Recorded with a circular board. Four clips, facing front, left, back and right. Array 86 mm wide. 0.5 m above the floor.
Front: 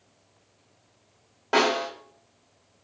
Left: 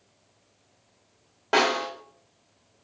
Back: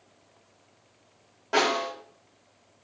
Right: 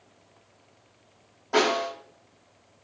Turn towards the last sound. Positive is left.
turn(degrees=75)